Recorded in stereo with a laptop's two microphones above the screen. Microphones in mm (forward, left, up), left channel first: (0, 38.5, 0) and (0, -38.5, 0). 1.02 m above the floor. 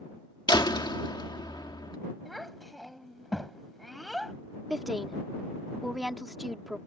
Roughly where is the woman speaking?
Centre.